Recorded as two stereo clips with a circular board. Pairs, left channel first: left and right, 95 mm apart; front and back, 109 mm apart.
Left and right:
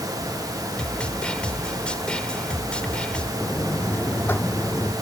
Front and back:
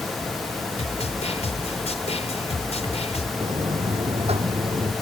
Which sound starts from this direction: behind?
A buzzer, at 3.4 s.